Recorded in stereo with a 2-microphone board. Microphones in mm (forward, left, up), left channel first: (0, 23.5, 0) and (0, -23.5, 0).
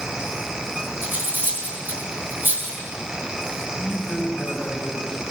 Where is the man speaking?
50° left (ahead or behind), 2 m.